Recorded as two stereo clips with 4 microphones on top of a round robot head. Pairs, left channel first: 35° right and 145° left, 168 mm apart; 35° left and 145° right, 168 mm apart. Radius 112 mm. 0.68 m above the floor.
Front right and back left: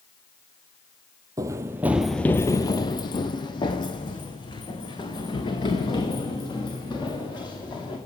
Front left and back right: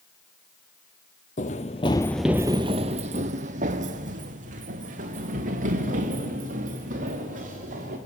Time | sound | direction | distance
1.4 | running footsteps | 75° left | 1.0 m